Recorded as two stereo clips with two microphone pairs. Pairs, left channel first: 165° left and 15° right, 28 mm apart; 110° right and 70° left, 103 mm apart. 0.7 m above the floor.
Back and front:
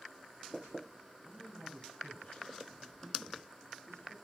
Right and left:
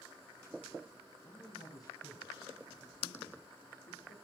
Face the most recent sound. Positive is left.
turn(degrees=-130)